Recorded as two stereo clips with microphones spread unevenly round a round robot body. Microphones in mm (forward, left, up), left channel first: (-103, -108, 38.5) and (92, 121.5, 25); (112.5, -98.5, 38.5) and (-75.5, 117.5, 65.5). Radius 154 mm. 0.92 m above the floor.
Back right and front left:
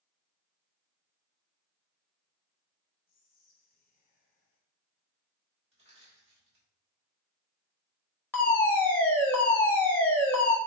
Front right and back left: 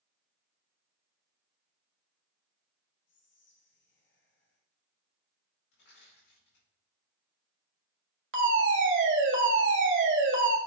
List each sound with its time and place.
3.1 s whispering: 75° right, 1.1 m
5.7 s crushing: 20° right, 4 m
8.3 s a fire alarm: 145° left, 1.7 m